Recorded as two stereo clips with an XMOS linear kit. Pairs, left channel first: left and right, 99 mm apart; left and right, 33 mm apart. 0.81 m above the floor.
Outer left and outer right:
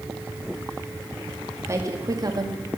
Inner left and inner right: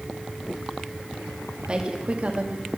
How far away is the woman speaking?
About 1.6 m.